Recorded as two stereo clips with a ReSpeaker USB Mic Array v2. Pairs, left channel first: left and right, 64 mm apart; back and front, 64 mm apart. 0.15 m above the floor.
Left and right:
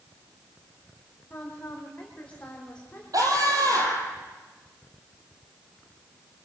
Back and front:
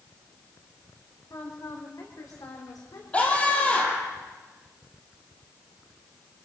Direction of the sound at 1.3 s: 155° left.